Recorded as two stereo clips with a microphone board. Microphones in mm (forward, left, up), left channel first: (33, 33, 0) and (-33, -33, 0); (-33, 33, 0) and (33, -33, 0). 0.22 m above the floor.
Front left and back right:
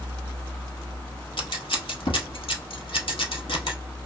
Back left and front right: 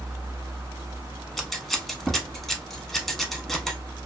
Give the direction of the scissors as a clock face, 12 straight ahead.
10 o'clock.